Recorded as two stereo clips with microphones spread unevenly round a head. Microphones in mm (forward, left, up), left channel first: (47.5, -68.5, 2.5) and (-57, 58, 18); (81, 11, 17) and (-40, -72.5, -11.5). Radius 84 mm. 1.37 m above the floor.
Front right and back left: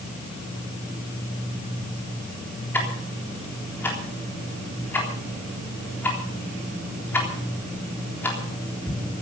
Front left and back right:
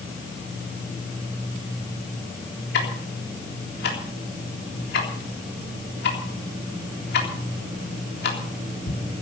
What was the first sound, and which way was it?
Ticking, 30° left.